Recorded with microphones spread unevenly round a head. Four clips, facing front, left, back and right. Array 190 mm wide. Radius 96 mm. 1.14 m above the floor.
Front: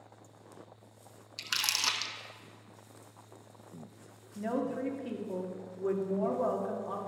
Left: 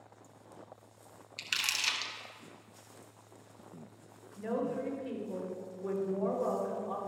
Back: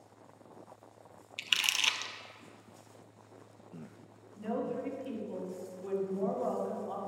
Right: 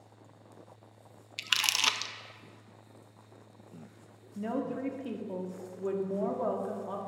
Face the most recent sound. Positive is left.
turn(degrees=-50)